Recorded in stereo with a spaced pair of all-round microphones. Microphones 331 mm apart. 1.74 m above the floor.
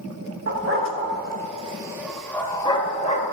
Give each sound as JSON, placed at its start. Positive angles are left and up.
{"t": 0.5, "sound": "a dog barking", "side_deg": -45, "distance_m": 2.0}